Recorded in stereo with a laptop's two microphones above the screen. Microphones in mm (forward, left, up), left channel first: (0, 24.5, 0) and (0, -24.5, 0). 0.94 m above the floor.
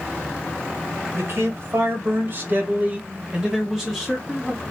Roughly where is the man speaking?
Right.